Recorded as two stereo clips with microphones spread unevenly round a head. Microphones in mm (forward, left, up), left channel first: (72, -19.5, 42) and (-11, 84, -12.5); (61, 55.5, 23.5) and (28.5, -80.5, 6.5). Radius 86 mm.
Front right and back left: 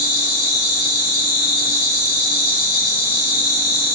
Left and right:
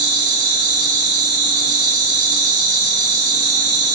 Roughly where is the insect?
Behind right.